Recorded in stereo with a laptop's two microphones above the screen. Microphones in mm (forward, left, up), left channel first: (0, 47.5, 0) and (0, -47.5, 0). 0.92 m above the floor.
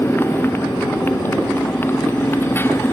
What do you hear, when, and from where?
0.0 s a motorcycle: 25° left (ahead or behind)